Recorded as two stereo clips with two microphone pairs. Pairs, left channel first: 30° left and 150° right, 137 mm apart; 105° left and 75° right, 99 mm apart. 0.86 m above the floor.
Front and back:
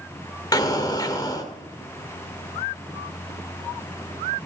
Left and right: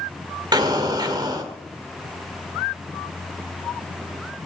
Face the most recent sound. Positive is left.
turn(degrees=-30)